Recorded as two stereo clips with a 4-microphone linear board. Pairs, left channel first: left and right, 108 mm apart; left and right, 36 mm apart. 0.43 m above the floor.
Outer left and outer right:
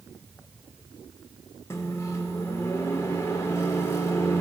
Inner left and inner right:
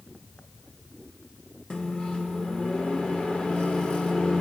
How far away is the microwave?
About 0.6 m.